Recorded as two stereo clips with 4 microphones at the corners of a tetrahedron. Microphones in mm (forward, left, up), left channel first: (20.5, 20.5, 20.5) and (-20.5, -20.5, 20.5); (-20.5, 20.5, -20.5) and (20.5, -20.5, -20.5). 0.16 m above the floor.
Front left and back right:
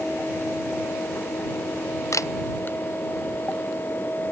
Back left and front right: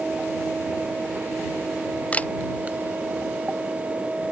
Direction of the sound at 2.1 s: 70° left.